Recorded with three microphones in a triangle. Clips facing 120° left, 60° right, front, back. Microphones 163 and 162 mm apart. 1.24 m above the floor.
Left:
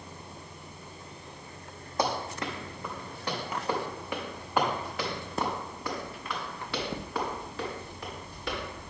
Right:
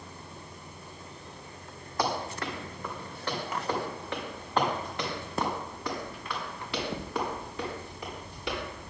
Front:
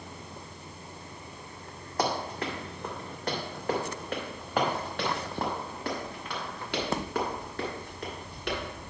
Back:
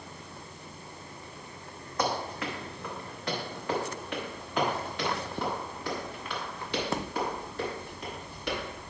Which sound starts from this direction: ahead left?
Running footsteps, at 2.0 s.